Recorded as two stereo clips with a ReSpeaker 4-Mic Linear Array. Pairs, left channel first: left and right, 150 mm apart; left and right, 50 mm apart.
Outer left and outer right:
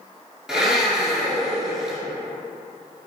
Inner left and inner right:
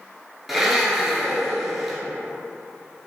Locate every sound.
0.5 s a blender: 5° right (ahead or behind), 0.6 m